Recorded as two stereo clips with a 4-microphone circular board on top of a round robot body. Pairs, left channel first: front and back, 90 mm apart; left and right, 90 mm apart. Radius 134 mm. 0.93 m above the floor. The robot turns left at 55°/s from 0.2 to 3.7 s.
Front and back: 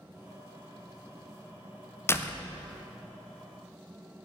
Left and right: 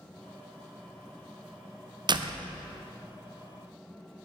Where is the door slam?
60° right, 0.7 m; by 2.5 s 80° right, 0.7 m.